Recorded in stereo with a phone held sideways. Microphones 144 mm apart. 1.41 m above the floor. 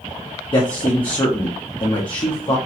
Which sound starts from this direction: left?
A man speaking, at 0.5 s.